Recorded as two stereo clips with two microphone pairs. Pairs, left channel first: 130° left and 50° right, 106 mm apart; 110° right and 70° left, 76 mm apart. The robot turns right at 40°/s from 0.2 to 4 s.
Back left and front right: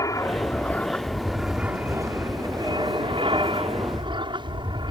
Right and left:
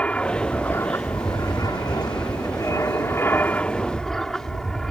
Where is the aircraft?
Straight behind; by 4.9 s 30° right.